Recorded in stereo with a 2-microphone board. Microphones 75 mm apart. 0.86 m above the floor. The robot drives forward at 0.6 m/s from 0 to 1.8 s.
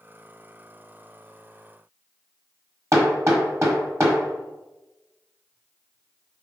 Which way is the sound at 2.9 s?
40° right (ahead or behind).